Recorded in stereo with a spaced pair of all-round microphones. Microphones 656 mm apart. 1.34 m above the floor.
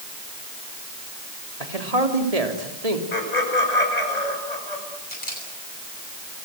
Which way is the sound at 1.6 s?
65° right (ahead or behind).